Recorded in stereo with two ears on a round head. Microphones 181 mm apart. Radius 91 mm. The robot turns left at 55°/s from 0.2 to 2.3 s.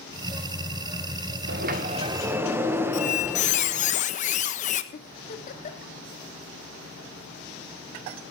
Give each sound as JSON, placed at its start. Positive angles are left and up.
{"t": 1.5, "sound": "a sliding door", "azimuth_deg": -125, "distance_m": 1.8}
{"t": 2.9, "sound": "a squeak", "side_deg": 35, "distance_m": 1.2}
{"t": 4.9, "sound": "a giggle", "side_deg": 40, "distance_m": 1.7}